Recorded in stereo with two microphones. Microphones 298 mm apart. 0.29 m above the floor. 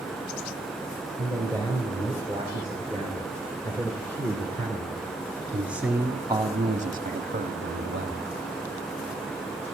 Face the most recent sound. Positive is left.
turn(degrees=-40)  # may be behind; listen again after turning